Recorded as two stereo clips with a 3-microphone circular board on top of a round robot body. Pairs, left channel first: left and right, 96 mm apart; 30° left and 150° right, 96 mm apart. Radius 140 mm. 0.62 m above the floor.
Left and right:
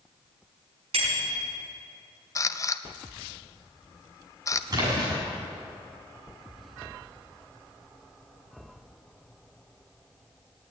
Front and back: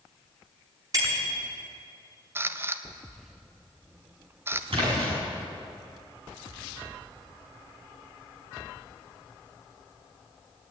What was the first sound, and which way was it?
A bicycle bell, 100° right.